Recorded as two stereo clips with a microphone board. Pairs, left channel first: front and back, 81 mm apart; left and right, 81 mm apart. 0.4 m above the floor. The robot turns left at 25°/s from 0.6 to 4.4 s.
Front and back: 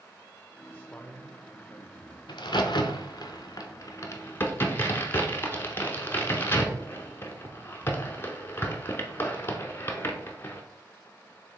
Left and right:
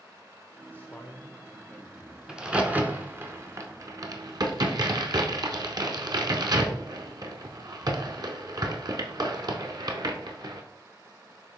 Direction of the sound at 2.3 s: 10° right.